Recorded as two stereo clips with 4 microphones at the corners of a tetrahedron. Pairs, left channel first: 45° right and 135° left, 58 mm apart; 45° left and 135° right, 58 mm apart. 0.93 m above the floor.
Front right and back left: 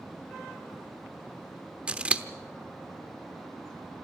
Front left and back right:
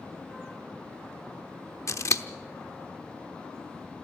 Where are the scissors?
65° left, 0.9 m.